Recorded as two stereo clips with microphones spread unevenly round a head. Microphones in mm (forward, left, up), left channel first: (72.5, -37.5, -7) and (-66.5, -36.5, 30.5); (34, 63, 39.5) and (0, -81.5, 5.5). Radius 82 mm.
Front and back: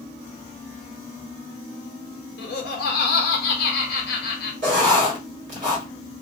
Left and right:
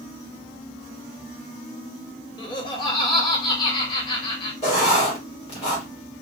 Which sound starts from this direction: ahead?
Laughter, at 2.4 s.